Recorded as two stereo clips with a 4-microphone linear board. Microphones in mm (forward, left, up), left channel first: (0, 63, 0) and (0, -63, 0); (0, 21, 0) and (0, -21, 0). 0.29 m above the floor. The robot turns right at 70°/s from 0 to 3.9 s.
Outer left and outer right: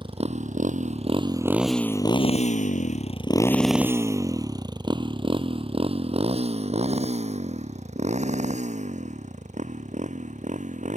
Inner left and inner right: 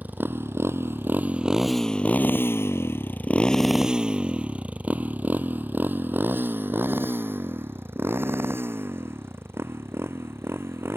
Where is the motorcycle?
40° right (ahead or behind); by 11.0 s 75° right (ahead or behind).